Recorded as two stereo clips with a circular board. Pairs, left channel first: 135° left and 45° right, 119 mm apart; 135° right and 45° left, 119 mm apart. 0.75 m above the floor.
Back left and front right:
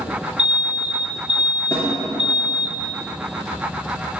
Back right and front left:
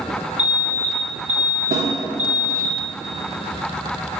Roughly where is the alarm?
Ahead left.